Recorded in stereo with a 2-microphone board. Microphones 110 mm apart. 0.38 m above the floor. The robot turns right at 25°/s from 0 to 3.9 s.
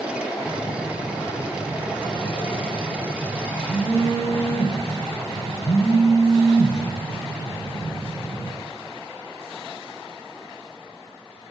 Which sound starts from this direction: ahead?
A phone buzzing, at 0.4 s.